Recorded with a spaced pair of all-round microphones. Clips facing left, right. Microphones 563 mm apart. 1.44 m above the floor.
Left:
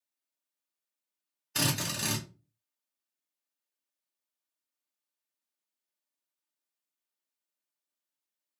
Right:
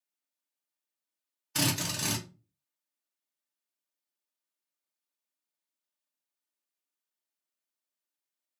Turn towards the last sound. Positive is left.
turn(degrees=-25)  # may be behind; listen again after turning